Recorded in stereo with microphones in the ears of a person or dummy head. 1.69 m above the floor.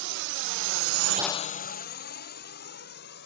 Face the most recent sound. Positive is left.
turn(degrees=55)  # may be behind; listen again after turning